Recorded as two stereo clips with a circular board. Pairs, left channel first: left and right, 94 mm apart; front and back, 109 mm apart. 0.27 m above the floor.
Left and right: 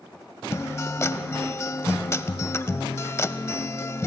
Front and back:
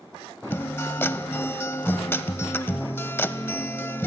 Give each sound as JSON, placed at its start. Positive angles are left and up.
{"t": 0.5, "sound": "a guitar", "azimuth_deg": 55, "distance_m": 0.6}